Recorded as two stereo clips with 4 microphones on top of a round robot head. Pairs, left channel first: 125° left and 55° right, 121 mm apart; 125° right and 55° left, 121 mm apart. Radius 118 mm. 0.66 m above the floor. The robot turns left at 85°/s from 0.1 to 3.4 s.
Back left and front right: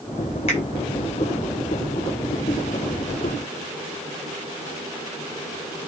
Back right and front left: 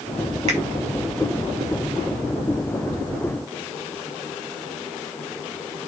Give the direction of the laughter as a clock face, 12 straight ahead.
No laughter in this recording.